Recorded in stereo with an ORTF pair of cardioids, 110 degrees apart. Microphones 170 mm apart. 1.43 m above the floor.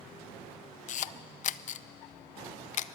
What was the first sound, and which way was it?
A camera shutter, 50° left.